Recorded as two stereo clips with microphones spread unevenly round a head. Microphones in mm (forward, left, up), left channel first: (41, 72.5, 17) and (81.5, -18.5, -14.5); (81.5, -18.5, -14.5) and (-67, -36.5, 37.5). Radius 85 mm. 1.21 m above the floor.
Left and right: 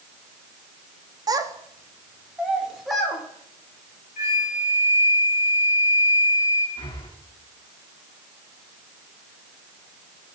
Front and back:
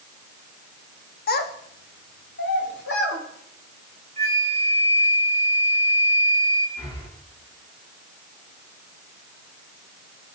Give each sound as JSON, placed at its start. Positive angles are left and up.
{"t": 1.3, "sound": "a child speaking", "azimuth_deg": -15, "distance_m": 1.7}
{"t": 4.2, "sound": "a flute", "azimuth_deg": 130, "distance_m": 2.0}
{"t": 6.8, "sound": "breathing", "azimuth_deg": 75, "distance_m": 3.5}